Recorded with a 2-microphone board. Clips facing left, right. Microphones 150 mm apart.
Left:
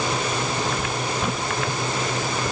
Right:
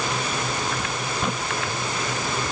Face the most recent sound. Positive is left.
No sound to turn to.